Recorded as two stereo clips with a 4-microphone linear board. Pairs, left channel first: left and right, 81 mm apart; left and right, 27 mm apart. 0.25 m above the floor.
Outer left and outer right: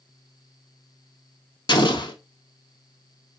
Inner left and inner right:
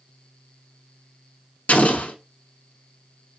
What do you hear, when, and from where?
1.7 s an explosion: 75° left (ahead or behind), 0.6 m